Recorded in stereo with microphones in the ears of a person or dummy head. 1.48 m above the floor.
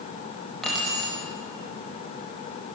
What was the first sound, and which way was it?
Keys jangling, 5° left (ahead or behind).